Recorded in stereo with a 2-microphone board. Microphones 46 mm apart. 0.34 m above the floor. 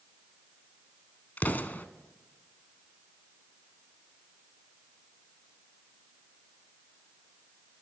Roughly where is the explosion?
Left.